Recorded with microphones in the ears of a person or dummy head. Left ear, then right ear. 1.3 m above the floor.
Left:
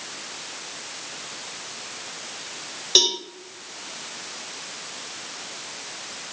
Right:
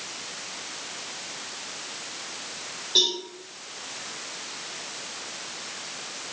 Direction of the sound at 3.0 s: 65° left (ahead or behind).